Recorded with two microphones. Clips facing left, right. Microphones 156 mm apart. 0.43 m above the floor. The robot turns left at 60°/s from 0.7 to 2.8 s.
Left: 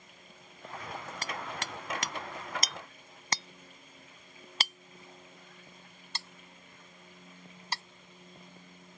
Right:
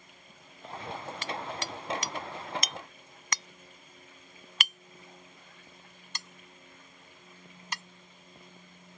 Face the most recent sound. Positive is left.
turn(degrees=35)  # may be behind; listen again after turning